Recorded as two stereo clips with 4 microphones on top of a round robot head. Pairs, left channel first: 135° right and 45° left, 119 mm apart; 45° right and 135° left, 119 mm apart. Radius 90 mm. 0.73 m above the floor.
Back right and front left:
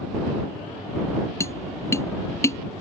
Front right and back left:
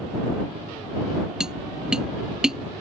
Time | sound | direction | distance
1.4 | tapping | 150° right | ?